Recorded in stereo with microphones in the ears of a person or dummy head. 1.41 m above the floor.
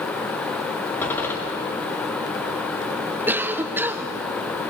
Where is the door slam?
15° left (ahead or behind), 2 m.